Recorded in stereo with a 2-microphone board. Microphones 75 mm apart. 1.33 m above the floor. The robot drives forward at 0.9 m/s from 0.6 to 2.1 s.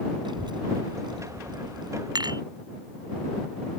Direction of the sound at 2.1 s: 70° right (ahead or behind).